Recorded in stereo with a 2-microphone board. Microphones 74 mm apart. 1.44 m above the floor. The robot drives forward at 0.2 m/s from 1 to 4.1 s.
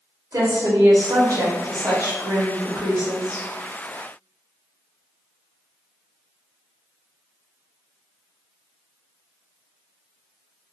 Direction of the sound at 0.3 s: 50° right (ahead or behind).